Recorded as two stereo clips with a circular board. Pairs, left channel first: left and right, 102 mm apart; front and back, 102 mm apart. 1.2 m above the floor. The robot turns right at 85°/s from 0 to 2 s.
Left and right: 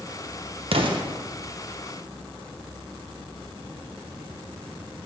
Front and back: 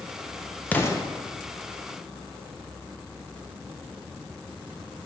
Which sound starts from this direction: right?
An explosion, at 0.7 s.